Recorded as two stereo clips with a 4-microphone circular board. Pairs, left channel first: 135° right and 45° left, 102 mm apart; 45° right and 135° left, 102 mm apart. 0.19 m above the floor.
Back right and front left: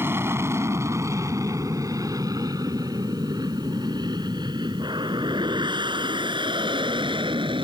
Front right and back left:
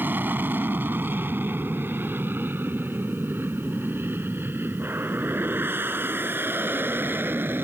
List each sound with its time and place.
0.0 s an aircraft: 85° left; by 7.7 s 70° left